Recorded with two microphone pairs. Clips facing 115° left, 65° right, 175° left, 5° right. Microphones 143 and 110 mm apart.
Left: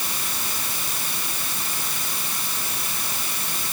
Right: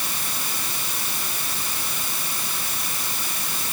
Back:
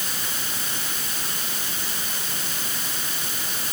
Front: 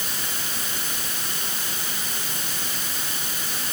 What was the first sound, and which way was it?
Only background noise.